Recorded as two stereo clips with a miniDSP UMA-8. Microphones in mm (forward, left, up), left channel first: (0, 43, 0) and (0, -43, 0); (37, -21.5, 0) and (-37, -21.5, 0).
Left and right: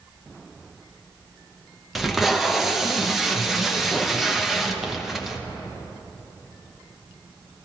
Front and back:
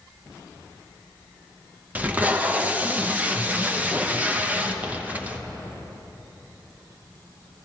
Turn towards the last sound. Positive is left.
turn(degrees=-175)